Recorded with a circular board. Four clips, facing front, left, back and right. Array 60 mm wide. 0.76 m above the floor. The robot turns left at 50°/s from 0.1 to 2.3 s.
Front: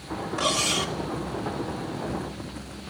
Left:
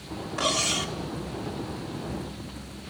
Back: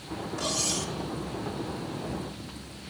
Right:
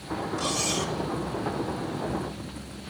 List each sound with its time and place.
0.4 s cutlery clinking: 55° left, 1.1 m; by 0.9 s 25° left, 1.1 m